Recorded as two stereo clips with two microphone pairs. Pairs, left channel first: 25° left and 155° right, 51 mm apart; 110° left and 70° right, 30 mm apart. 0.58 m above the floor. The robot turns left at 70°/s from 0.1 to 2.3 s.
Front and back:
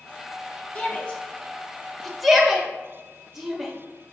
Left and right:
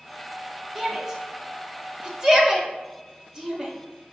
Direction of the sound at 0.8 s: 25° left.